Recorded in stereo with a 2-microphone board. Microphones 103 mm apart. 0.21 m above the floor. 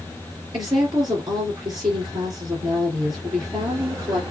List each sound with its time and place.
0.5 s a woman speaking: 40° right (ahead or behind), 3 m